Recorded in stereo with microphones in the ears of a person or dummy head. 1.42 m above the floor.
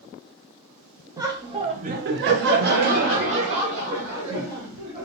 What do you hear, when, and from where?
1.2 s laughter: 15° right (ahead or behind), 0.8 m; by 5.0 s 30° right (ahead or behind), 1.9 m